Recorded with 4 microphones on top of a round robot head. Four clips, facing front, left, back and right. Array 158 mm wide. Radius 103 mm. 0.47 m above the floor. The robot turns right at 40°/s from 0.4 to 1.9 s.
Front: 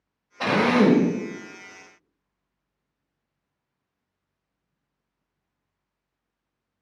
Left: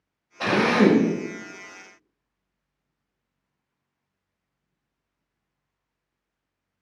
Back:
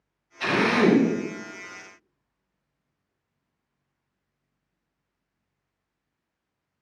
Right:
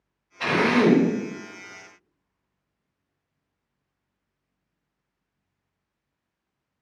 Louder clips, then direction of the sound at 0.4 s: Left 1 dB, front 2 dB; 35° left.